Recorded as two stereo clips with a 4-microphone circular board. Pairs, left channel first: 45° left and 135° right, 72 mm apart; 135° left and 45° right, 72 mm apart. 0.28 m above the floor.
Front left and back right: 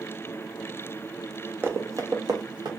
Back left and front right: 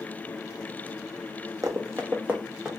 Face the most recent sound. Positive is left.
turn(degrees=-120)